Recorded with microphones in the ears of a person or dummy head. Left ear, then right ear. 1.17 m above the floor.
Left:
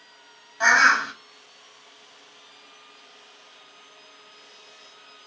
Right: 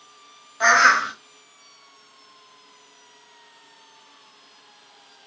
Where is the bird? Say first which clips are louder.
Right 2 dB; centre (ahead or behind), 1.1 m.